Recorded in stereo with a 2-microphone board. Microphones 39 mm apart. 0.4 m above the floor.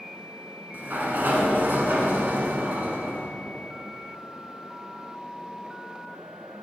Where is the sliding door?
55° right (ahead or behind), 1.2 m.